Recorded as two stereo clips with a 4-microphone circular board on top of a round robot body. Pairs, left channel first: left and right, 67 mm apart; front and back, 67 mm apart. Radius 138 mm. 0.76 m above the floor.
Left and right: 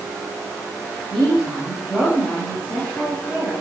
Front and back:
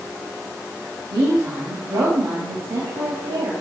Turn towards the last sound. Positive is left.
turn(degrees=170)